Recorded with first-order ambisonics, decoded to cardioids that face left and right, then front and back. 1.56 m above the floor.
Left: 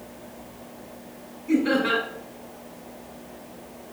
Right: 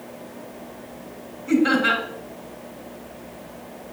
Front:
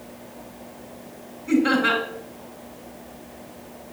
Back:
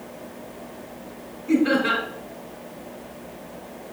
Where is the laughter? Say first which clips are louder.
Right 3 dB, front 1 dB; 45° right, 3.5 m.